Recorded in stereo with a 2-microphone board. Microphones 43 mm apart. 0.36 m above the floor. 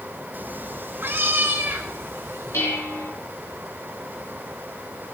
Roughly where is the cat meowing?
Right.